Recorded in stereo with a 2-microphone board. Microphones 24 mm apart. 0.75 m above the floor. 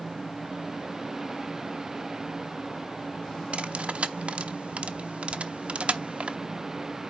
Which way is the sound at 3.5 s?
60° right (ahead or behind).